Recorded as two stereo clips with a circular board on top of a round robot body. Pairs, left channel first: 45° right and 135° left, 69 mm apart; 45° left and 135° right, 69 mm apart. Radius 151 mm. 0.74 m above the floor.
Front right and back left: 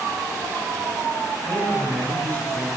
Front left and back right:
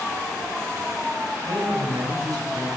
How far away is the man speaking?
About 7 m.